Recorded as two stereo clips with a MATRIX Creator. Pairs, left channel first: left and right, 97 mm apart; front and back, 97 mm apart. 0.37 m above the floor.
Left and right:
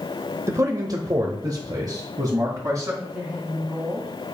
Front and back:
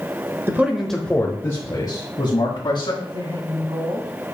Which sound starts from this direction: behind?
A woman speaking, at 3.0 s.